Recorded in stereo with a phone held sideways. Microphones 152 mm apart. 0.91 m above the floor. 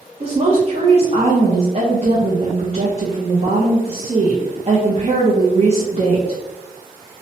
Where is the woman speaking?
45° right (ahead or behind), 0.6 m.